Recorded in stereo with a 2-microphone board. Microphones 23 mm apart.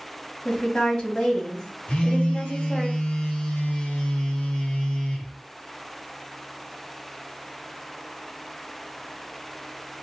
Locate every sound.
0.5 s a woman speaking: 40° left (ahead or behind), 1.6 m
1.9 s a phone buzzing: 55° left (ahead or behind), 0.8 m